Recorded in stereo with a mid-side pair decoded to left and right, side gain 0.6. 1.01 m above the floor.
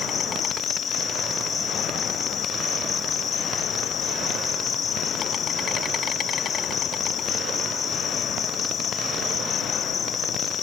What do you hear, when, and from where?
0.0 s an insect: 40° left